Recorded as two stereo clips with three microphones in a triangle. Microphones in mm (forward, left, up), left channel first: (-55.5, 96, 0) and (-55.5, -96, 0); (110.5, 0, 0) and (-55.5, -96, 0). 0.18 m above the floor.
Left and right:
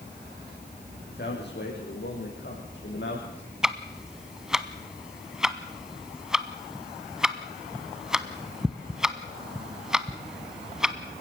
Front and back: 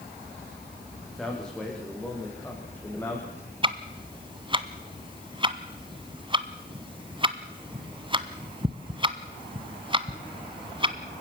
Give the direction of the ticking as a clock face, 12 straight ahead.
6 o'clock.